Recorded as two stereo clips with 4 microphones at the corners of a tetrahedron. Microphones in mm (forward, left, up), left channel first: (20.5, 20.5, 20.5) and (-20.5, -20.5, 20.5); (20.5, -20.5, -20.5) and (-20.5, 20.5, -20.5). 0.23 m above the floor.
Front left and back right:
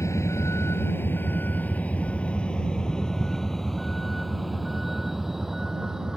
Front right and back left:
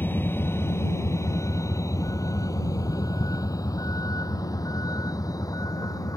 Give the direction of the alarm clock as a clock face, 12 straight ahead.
I don't hear an alarm clock.